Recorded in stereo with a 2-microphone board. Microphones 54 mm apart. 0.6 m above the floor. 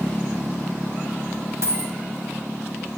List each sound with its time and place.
1.6 s a dropped coin: 60° right (ahead or behind), 0.8 m